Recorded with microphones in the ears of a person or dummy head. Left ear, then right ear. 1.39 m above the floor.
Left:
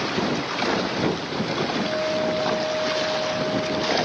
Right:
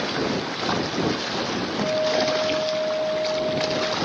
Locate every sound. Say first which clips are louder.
1.8 s a guitar: right 7 dB; 80° right